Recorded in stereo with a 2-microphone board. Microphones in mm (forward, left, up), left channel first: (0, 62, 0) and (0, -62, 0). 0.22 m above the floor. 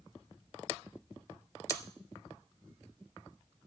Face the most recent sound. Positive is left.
turn(degrees=25)  # may be behind; listen again after turning